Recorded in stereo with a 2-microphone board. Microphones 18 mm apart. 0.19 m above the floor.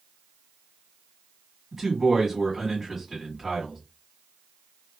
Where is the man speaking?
15° right (ahead or behind), 1.5 m.